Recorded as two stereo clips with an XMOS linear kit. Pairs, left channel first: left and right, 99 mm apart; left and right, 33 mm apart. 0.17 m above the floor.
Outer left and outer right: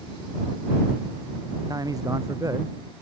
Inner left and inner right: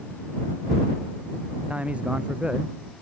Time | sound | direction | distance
1.7 | a man speaking | 40° right (ahead or behind) | ?